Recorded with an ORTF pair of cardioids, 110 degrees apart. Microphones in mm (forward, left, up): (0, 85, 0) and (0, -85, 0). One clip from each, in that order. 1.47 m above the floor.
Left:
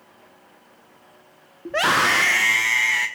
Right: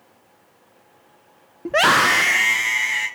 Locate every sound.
1.6 s a scream: 35° right, 0.8 m; by 3.1 s 15° left, 2 m